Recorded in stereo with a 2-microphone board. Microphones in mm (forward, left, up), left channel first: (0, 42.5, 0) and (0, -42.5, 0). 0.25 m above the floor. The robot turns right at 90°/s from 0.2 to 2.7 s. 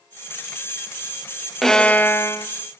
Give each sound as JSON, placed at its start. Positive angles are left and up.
{"t": 1.6, "sound": "a violin", "azimuth_deg": 5, "distance_m": 1.0}